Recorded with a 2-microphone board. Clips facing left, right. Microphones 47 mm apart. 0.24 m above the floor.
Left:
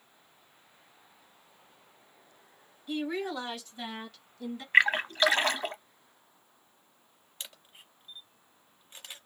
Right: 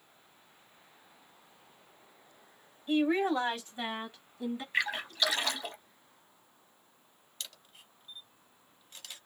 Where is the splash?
45° left (ahead or behind), 0.5 m.